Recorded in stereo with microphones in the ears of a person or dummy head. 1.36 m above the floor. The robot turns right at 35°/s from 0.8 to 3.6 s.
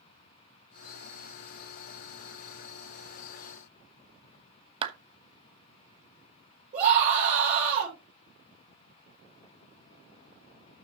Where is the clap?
35° right (ahead or behind), 1.0 m.